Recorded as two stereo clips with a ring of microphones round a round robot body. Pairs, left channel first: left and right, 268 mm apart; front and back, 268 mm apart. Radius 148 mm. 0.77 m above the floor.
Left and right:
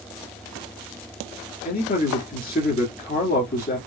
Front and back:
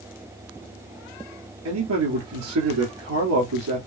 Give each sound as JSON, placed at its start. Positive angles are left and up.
{"t": 1.6, "sound": "a man speaking", "azimuth_deg": 145, "distance_m": 1.9}